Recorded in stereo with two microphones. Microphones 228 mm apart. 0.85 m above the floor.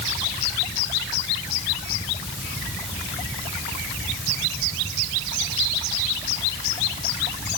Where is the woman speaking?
I don't hear a woman speaking.